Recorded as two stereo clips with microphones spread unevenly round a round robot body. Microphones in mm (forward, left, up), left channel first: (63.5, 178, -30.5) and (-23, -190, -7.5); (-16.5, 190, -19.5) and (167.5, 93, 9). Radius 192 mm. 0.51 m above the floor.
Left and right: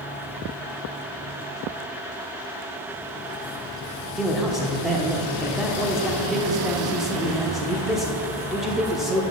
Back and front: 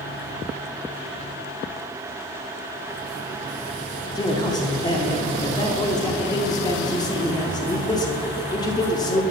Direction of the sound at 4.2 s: 160° left.